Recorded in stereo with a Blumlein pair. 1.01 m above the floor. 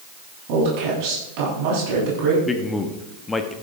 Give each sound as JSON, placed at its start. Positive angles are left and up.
{"t": 0.5, "sound": "a woman speaking", "azimuth_deg": -45, "distance_m": 8.5}
{"t": 2.5, "sound": "a man speaking", "azimuth_deg": 15, "distance_m": 1.6}